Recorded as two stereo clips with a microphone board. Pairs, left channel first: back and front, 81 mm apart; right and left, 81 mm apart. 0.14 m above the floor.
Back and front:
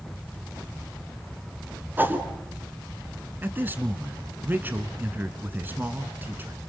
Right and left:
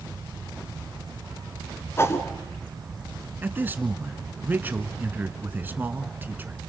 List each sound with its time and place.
2.0 s a whoosh: 50° right, 1.5 m
3.4 s a man speaking: 45° left, 1.2 m